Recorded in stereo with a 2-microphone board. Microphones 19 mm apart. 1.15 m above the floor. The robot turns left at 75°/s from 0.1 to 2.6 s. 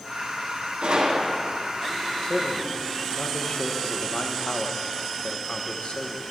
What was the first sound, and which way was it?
A gunshot, 115° right.